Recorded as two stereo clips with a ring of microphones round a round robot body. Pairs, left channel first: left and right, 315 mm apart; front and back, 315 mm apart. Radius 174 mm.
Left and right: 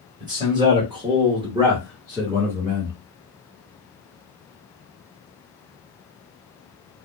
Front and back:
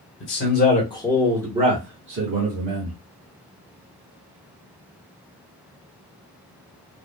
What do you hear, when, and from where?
0.2 s a man speaking: 20° right, 1.3 m; by 3.0 s 175° right, 1.7 m